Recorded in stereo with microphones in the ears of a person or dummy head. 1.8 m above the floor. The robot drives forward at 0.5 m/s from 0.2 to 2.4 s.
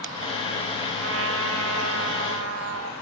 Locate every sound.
1.0 s a trumpet: 75° right (ahead or behind), 2.5 m; by 2.9 s 85° right, 2.5 m